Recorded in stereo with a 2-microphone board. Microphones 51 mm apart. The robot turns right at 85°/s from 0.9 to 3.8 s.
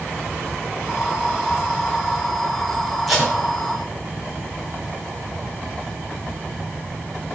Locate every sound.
3.1 s tape being pulled: 5° left (ahead or behind), 3.5 m; by 3.3 s 20° right (ahead or behind), 3.5 m